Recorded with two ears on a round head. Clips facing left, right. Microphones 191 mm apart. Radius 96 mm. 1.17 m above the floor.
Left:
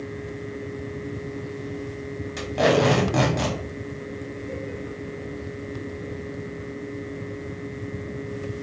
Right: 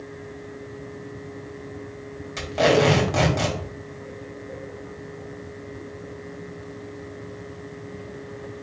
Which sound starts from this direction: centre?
Tape being pulled, at 2.4 s.